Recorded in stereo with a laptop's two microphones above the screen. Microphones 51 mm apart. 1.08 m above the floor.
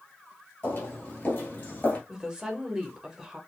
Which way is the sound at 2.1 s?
10° right (ahead or behind).